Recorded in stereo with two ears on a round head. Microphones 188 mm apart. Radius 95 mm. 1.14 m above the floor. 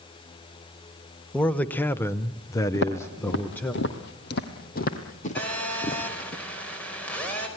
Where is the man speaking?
5° left (ahead or behind), 1.1 m; by 3.7 s 10° left (ahead or behind), 1.4 m.